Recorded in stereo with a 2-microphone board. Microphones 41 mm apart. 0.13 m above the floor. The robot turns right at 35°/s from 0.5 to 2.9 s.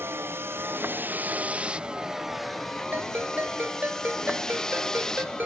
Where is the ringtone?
50° right (ahead or behind).